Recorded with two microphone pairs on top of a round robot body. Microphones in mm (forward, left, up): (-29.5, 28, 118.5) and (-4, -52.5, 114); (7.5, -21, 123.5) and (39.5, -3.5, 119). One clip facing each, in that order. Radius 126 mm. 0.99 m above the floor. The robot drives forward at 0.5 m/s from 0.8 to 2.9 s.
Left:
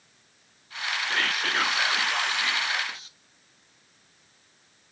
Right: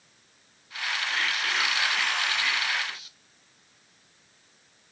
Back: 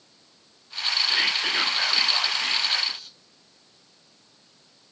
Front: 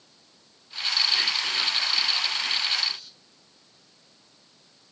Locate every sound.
1.1 s whispering: 145° left, 0.5 m; by 3.2 s 170° left, 1.3 m